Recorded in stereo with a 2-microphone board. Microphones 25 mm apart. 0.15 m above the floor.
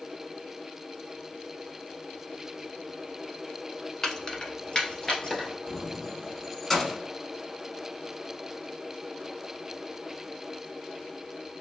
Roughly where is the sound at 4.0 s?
Left.